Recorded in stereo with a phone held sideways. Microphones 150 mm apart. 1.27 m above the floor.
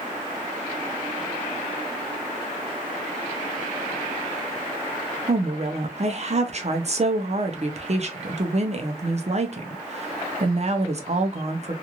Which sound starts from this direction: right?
A woman speaking, at 5.3 s.